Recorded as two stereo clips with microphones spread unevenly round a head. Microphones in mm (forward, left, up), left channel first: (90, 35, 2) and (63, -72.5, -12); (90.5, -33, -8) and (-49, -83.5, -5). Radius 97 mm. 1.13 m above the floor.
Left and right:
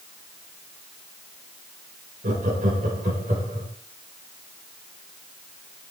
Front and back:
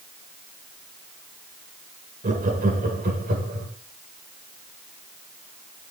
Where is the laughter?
130° right, 4 m; by 3.7 s 155° right, 3.5 m.